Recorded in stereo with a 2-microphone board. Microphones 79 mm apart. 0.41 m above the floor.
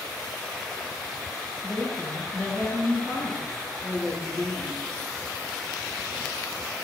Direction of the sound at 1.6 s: 10° left (ahead or behind).